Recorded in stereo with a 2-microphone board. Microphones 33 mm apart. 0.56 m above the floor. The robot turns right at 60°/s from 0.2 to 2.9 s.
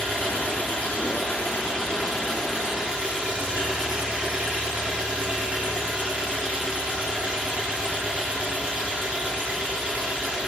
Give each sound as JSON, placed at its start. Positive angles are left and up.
{"t": 0.0, "sound": "an engine running", "azimuth_deg": 60, "distance_m": 1.9}